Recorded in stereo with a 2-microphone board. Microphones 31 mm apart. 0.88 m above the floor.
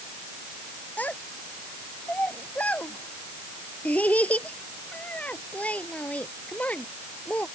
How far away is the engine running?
No engine running in this recording.